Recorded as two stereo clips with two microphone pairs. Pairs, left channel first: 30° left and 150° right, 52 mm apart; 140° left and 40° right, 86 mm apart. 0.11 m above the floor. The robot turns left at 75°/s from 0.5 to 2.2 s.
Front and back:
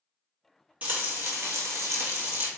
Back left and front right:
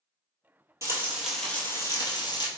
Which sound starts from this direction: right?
Frying, at 0.8 s.